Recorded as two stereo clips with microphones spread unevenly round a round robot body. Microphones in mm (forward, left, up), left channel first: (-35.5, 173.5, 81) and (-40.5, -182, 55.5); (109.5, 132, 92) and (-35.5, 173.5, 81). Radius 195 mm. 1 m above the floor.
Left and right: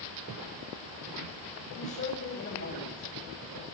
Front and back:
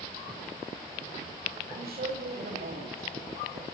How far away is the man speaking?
About 7 m.